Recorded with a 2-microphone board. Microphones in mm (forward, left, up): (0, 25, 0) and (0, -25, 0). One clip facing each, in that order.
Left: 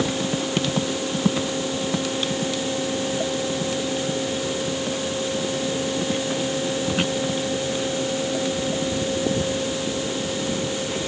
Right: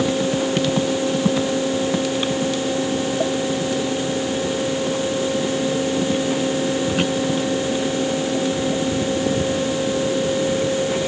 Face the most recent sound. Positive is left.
No sound to turn to.